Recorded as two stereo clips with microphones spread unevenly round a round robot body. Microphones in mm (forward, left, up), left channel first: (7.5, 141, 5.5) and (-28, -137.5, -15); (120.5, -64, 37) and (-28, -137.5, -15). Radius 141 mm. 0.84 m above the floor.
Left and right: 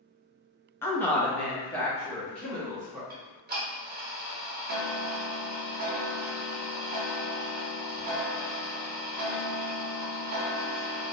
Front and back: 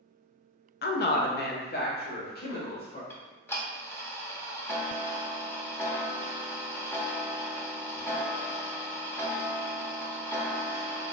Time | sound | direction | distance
0.8 | a woman speaking | straight ahead | 0.5 m
3.1 | ticking | 40° right | 0.7 m